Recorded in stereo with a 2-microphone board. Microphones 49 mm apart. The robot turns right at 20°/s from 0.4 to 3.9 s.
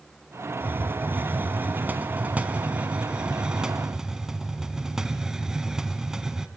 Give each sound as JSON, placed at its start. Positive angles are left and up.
{"t": 0.6, "sound": "a hiss", "azimuth_deg": -80, "distance_m": 1.6}